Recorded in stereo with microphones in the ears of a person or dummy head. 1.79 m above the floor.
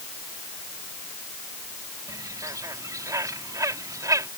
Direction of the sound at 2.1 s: 20° right (ahead or behind).